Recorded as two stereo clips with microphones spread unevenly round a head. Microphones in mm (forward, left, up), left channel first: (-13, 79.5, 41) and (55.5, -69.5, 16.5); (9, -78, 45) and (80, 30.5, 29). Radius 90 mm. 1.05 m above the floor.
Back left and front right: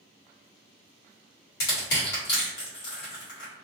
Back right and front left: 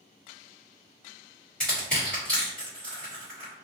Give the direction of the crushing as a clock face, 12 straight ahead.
7 o'clock.